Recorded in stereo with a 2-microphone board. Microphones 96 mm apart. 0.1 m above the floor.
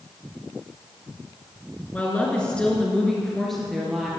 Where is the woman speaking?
15° left (ahead or behind), 1.4 m; by 4.1 s centre (ahead or behind), 2 m.